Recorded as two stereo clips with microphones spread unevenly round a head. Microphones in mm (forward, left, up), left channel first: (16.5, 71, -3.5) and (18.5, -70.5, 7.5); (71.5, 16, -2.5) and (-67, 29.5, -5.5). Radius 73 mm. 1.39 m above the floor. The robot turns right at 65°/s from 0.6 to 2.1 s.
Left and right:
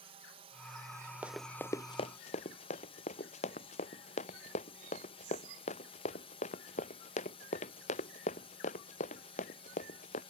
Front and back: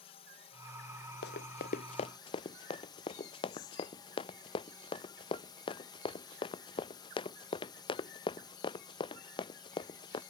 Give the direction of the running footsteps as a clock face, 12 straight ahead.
12 o'clock.